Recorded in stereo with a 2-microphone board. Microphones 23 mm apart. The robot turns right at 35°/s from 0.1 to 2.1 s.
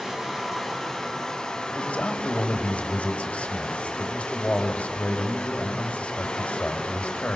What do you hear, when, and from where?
0.0 s running water: 15° right, 6.5 m; by 7.4 s 55° left, 6.5 m
1.8 s a man speaking: 80° left, 4 m; by 7.4 s 70° left (ahead or behind), 4 m